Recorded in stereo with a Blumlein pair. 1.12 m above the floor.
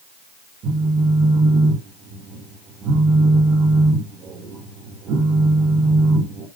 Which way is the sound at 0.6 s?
30° right.